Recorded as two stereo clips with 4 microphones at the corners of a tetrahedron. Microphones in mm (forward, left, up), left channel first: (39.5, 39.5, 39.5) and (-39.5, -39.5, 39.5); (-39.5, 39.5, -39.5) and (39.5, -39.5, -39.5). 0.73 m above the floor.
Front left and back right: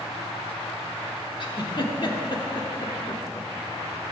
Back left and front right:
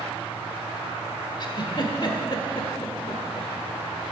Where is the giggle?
90° left, 1.2 m.